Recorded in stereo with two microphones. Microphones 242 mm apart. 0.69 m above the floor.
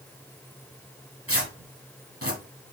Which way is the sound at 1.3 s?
70° right (ahead or behind).